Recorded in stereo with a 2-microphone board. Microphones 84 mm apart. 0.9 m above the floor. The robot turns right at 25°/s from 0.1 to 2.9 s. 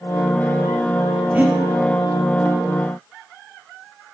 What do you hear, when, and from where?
1.3 s breathing: 20° right (ahead or behind), 2.5 m; by 1.6 s 15° right (ahead or behind), 2.5 m